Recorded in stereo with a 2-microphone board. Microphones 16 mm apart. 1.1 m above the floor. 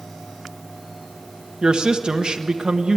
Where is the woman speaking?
70° right (ahead or behind), 1.1 m.